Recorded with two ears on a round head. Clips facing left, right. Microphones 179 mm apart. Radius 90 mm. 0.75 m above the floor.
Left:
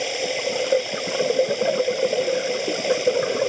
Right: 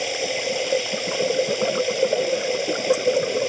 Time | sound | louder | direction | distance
0.0 | running water | left 1 dB | centre (ahead or behind) | ?